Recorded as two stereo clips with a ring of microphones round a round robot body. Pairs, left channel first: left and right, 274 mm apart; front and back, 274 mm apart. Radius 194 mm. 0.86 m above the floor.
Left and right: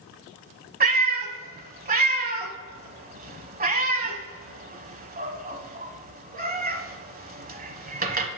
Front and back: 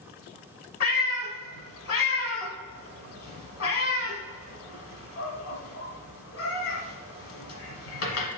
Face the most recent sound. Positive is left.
turn(degrees=-35)